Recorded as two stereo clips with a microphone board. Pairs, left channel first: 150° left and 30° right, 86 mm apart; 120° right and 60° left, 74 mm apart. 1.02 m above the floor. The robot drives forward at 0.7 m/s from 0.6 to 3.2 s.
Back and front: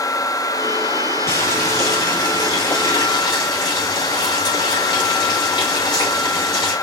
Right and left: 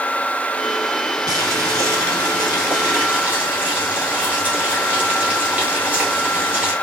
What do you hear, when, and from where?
1.3 s boiling: 95° left, 1.6 m; by 6.7 s 135° left, 2 m